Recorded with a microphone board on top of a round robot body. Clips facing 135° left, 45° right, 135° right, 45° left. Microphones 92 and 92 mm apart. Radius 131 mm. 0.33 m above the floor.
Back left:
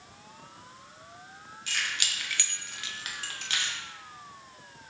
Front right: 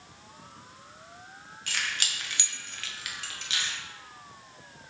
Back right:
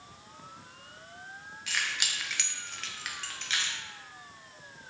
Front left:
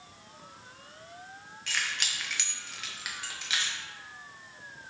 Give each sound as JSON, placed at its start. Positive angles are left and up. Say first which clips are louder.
{"t": 1.7, "sound": "keys jangling", "louder": "even, even", "azimuth_deg": -50, "distance_m": 0.9}